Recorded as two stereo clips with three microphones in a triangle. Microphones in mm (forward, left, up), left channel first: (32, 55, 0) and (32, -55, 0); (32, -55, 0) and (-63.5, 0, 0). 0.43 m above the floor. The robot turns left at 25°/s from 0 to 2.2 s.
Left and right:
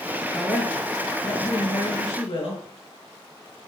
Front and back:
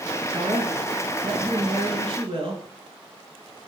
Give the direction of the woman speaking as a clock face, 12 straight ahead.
6 o'clock.